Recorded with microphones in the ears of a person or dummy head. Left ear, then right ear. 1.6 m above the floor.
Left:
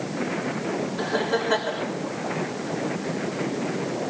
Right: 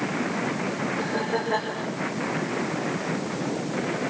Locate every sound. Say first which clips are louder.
1.0 s laughter: left 4 dB; 85° left, 4.5 m